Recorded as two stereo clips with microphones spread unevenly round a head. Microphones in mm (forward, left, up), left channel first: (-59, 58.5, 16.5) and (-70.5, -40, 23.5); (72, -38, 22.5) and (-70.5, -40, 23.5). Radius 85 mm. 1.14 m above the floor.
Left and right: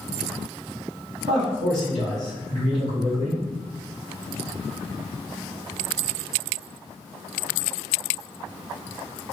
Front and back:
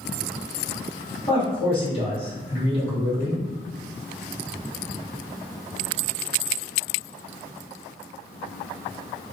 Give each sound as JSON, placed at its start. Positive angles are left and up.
{"t": 1.3, "sound": "a man speaking", "azimuth_deg": -50, "distance_m": 1.5}